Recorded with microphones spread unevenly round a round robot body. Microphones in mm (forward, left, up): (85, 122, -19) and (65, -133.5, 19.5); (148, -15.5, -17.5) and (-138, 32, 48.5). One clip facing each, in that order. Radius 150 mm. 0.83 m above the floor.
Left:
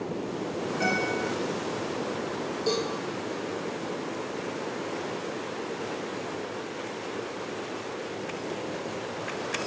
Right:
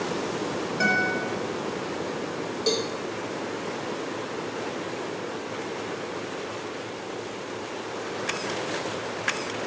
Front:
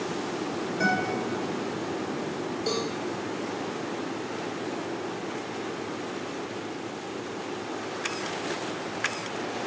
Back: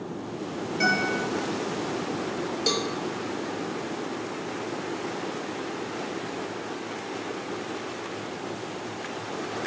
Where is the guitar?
110° right, 3 m.